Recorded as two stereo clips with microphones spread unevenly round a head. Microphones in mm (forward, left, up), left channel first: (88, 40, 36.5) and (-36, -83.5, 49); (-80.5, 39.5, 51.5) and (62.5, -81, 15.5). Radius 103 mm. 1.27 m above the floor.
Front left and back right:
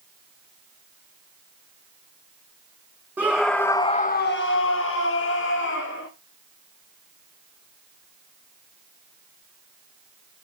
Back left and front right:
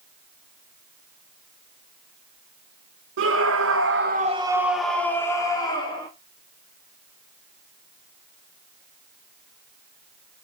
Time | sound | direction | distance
3.2 | a scream | 55° right | 1.3 m